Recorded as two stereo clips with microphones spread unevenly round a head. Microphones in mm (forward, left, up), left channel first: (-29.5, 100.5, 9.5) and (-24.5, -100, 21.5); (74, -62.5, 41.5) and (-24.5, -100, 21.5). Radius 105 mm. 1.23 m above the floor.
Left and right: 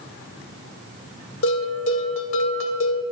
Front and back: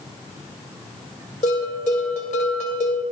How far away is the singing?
No singing in this recording.